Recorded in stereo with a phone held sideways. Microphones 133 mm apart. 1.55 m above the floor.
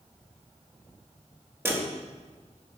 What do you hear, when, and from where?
1.6 s a dropped coin: 20° right (ahead or behind), 1.0 m